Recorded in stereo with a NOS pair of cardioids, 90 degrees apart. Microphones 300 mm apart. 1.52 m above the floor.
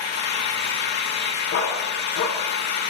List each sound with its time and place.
0.0 s an engine running: 60° left, 5.5 m
1.5 s a dog barking: 70° left, 6 m